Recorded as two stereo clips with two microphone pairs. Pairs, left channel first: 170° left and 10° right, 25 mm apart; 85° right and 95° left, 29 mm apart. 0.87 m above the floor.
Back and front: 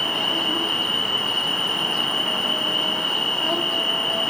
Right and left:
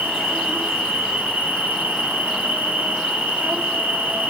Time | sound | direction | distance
0.0 | an insect | 110° left | 2.5 m